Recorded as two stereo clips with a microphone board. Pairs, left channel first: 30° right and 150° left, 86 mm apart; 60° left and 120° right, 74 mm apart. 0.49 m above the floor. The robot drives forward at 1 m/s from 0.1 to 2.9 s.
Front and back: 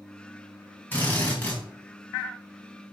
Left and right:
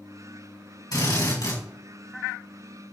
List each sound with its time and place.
0.9 s a drill: 35° left, 4.5 m; by 1.6 s 45° left, 4 m